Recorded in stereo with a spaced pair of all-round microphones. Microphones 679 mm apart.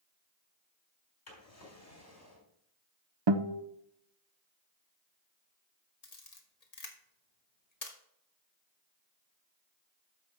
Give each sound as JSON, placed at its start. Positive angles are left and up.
{"t": 1.3, "sound": "a drawer", "side_deg": 80, "distance_m": 3.5}
{"t": 3.3, "sound": "a guitar", "side_deg": -40, "distance_m": 0.6}
{"t": 6.0, "sound": "a camera shutter", "side_deg": 65, "distance_m": 1.4}